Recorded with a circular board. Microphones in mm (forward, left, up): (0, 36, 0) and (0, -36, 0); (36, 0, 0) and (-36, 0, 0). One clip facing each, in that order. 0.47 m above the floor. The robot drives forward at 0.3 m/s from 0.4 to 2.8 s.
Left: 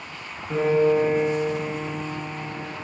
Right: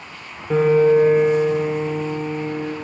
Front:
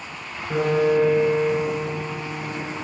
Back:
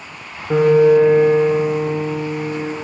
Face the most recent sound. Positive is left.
turn(degrees=-155)